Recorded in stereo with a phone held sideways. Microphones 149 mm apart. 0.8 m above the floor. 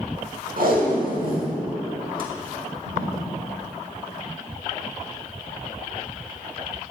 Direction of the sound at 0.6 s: 70° right (ahead or behind).